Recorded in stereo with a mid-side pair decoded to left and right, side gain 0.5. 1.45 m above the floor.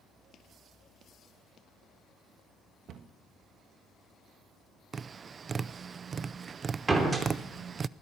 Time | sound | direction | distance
2.9 | a cupboard door | 60° right | 1.6 m
4.9 | tapping | 40° right | 0.5 m
6.9 | a door slam | 25° right | 3 m